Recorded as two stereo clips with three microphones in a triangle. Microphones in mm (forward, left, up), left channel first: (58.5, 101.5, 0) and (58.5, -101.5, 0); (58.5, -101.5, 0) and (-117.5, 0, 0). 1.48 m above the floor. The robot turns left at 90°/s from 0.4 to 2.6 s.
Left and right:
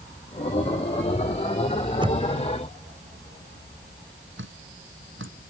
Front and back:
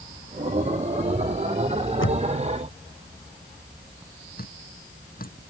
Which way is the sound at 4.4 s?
75° right.